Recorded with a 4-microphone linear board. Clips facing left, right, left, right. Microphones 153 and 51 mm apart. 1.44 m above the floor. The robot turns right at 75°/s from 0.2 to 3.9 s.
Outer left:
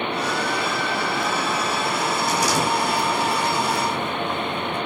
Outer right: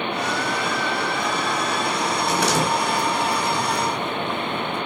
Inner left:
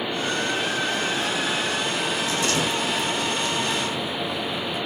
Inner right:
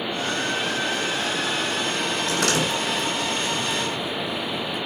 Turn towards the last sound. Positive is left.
turn(degrees=5)  # may be behind; listen again after turning